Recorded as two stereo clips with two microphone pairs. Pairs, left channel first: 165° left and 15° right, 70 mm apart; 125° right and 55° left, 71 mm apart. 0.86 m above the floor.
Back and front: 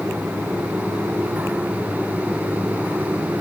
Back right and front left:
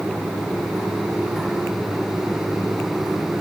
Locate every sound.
Only background noise.